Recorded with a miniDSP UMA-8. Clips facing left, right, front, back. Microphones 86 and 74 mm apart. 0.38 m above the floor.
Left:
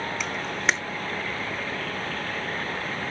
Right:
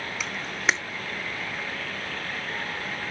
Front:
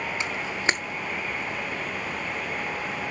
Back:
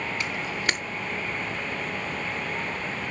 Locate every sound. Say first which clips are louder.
0.2 s a camera shutter: right 1 dB, front 3 dB; 5° right, 0.9 m